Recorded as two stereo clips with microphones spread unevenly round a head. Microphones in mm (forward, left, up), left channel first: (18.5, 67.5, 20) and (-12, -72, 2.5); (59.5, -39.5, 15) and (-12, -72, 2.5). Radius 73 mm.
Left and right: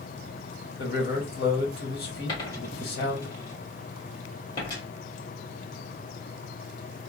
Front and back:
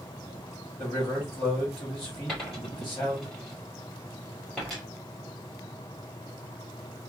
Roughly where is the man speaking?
Left.